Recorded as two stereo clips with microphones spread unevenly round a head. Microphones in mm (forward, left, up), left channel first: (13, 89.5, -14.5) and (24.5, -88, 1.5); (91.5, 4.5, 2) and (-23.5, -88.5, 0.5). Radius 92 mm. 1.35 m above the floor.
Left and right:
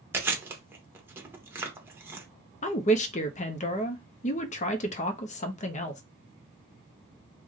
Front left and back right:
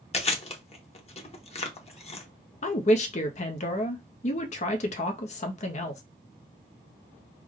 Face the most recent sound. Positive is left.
turn(degrees=70)